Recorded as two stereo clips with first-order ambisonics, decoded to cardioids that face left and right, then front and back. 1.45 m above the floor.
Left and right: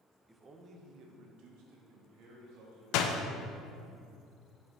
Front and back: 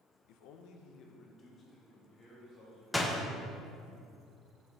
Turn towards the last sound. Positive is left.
turn(degrees=85)